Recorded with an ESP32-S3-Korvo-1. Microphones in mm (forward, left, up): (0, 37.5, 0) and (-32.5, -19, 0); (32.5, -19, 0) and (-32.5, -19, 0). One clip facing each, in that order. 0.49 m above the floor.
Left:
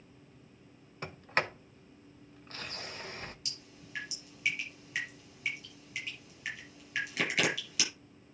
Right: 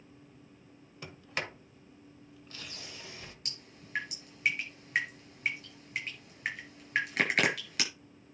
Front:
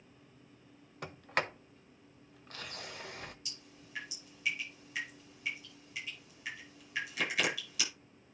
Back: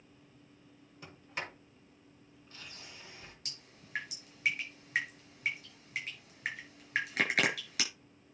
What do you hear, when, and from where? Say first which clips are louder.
1.0 s a sliding door: left 6 dB, front 7 dB; 15° left, 1.0 m
3.5 s dripping: right 1 dB, front 1 dB; 155° right, 4.5 m